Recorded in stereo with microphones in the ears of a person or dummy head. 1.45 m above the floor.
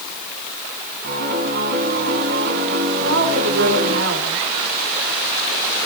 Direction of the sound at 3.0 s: 80° right.